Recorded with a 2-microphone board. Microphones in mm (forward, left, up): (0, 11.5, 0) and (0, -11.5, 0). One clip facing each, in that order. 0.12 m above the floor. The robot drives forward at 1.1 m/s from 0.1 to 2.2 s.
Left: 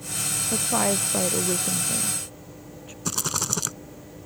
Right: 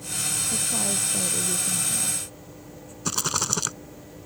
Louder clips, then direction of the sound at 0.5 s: Left 3 dB; 40° left (ahead or behind).